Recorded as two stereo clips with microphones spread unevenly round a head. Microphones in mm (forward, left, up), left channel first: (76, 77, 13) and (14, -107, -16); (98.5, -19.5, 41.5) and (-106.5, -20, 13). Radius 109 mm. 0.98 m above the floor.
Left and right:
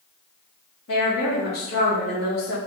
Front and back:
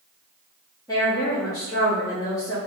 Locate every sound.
0.9 s a woman speaking: 75° left, 2 m